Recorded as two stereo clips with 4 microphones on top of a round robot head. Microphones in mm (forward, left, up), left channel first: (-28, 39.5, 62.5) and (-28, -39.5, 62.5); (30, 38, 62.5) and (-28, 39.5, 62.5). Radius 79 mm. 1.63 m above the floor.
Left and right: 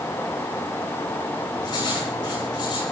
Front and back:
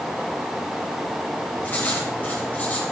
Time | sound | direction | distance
1.6 | writing | 60° left | 8.5 m